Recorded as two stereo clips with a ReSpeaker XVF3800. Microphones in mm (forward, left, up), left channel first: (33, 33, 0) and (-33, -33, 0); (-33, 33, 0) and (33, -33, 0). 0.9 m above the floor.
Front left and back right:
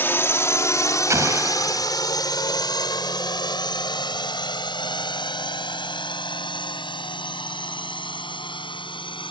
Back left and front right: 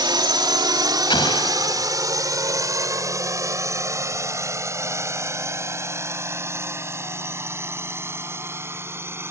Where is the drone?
20° right; by 9.3 s 20° left.